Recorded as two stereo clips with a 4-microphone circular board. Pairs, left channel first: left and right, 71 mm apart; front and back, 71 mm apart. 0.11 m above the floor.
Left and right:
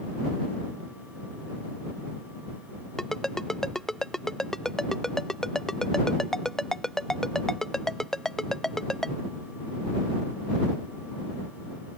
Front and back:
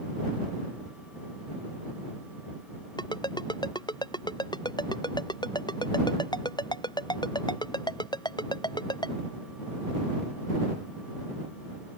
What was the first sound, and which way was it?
A ringtone, 10° left.